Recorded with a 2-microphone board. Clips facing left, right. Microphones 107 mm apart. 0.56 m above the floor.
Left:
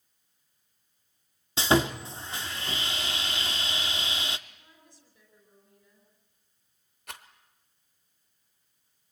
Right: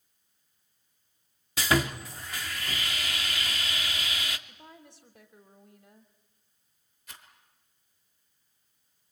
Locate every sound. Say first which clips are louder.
1.6 s sawing: left 3 dB; 25° left (ahead or behind), 0.9 m
4.5 s a woman speaking: right 8 dB; 65° right (ahead or behind), 2.5 m
7.1 s a rattle: left 7 dB; 60° left (ahead or behind), 1.5 m